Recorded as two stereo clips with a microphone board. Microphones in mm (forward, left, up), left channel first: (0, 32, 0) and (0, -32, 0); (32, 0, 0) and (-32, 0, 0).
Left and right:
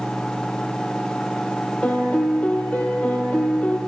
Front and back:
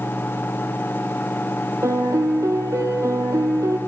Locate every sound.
1.8 s a piano: 155° left, 1.1 m